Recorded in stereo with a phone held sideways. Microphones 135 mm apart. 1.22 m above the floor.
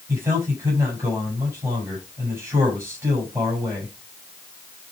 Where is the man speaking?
25° right (ahead or behind), 8.5 m.